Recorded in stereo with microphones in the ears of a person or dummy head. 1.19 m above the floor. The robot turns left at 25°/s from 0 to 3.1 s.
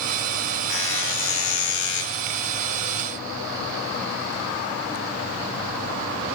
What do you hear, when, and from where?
0.7 s a buzzer: 120° left, 4.5 m; by 2.0 s 90° left, 4.5 m